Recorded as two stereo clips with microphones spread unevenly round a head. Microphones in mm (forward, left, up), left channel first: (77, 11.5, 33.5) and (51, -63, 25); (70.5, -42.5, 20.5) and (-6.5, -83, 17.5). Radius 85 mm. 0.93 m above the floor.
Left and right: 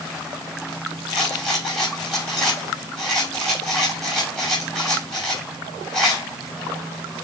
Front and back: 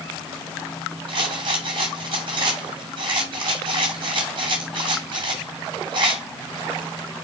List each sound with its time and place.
1.1 s a rattle: 160° left, 2.5 m